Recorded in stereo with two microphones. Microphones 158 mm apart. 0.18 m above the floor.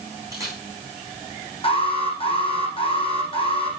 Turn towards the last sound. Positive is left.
turn(degrees=35)  # may be behind; listen again after turning